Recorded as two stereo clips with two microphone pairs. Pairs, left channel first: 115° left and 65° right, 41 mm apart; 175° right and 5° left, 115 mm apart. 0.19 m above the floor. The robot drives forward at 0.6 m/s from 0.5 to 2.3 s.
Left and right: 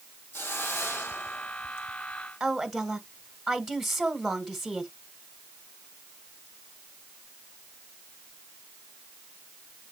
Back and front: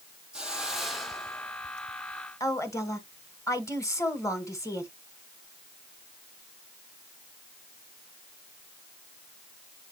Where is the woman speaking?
145° right, 1.7 m.